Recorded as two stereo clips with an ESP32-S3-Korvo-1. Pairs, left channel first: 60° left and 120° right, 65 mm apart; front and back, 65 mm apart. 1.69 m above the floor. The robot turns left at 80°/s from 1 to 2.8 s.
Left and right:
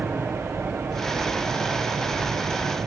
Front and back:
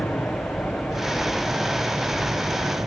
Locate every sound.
0.0 s an aircraft: 45° right; by 2.9 s 170° left